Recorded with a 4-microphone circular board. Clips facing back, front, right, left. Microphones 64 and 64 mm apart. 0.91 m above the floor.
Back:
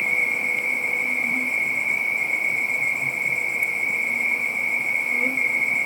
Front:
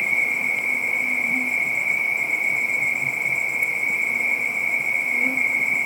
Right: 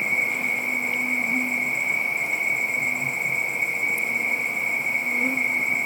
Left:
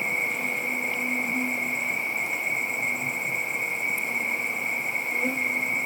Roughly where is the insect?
Right.